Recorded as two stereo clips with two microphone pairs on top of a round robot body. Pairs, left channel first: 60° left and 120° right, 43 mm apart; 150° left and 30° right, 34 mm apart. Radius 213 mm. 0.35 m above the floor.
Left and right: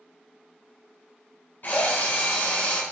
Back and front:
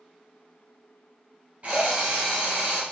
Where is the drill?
20° left, 2 m.